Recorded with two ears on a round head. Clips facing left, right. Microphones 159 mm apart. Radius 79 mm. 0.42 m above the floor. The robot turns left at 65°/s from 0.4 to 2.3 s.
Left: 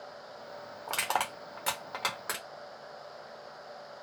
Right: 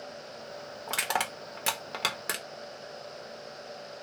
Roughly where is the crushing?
Centre.